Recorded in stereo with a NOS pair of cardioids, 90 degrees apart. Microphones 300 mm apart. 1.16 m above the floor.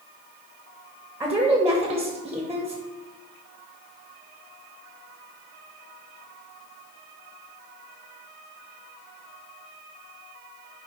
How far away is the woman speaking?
About 0.6 m.